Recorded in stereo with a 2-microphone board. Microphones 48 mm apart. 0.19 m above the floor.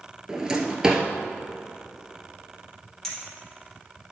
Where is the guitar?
No guitar in this recording.